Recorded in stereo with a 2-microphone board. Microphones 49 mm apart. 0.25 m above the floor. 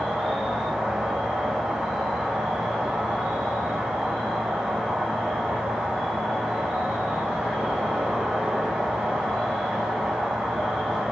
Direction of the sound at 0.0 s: 5° right (ahead or behind).